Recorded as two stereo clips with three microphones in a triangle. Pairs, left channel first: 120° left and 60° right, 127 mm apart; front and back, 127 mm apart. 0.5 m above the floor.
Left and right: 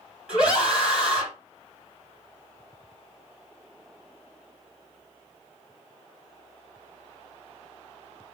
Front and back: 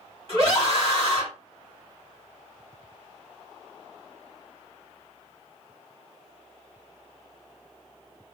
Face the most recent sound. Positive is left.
turn(degrees=-140)